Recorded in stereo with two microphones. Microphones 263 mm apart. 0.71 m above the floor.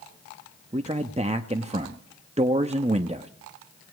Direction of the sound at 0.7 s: 25° right (ahead or behind).